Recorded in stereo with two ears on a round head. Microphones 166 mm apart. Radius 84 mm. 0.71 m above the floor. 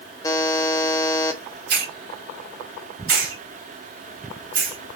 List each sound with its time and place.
0.2 s a buzzer: 20° left (ahead or behind), 0.7 m
1.7 s a hiss: 65° right (ahead or behind), 2.5 m